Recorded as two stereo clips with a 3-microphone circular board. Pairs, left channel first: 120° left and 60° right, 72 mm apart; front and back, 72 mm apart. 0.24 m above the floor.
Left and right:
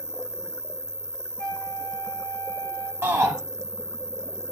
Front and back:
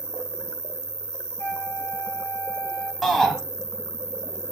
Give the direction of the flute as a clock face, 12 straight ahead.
10 o'clock.